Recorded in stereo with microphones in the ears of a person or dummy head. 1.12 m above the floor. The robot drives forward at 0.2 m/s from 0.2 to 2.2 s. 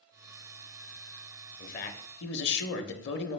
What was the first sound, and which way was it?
A man speaking, 45° left (ahead or behind).